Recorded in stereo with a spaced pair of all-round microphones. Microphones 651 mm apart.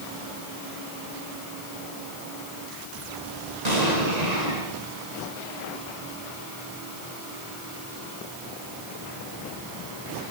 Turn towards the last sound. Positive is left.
turn(degrees=-85)